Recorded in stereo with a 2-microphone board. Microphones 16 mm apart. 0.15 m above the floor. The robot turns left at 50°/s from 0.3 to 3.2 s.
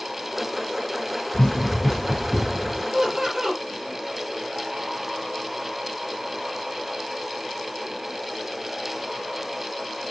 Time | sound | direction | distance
1.3 | running footsteps | 65° left (ahead or behind) | 2 m
2.9 | laughter | 35° right (ahead or behind) | 4.5 m